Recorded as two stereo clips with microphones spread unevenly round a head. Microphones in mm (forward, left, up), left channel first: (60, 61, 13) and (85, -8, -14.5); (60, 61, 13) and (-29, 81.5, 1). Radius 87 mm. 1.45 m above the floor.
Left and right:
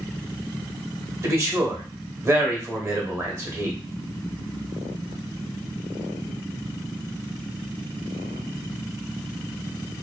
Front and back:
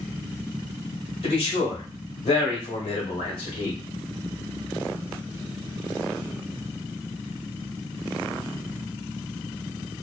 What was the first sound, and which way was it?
A man speaking, 25° right.